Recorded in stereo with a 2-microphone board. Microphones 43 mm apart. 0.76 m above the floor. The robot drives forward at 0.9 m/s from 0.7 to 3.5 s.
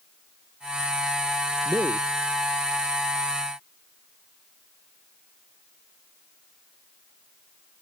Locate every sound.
1.6 s a man speaking: 80° right